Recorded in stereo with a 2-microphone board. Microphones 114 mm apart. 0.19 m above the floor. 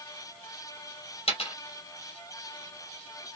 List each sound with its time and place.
1.3 s a dropped coin: 50° left (ahead or behind), 2 m